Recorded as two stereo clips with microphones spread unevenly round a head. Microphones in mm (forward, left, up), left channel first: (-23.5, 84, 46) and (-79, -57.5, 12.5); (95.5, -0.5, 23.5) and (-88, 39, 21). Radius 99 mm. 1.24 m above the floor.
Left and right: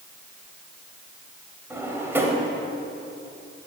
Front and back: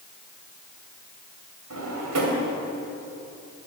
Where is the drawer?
170° left, 3 m.